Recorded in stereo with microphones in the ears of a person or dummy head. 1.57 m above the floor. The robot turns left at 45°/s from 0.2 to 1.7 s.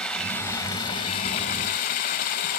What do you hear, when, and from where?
0.0 s running water: 175° left, 0.8 m; by 2.6 s 105° left, 0.8 m